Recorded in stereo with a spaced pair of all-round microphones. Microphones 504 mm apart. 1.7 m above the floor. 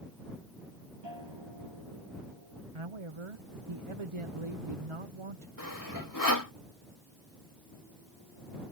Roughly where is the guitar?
Right.